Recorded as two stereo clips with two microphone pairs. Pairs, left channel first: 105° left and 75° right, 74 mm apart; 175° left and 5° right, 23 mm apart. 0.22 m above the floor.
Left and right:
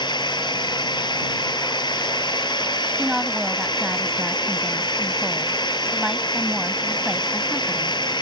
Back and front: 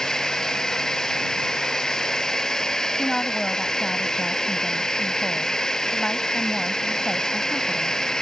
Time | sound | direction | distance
0.0 | a drone | 110° left | ?
3.0 | a woman speaking | 150° right | ?